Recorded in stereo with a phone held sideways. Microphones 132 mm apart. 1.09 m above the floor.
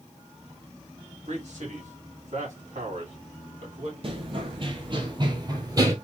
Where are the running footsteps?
50° right (ahead or behind), 1.5 m; by 6.0 s 30° right (ahead or behind), 1.6 m.